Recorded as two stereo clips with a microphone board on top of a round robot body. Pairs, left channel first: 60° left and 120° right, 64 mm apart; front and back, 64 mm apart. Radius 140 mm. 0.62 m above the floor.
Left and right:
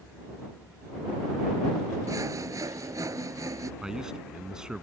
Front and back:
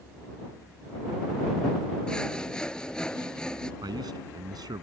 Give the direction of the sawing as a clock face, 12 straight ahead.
3 o'clock.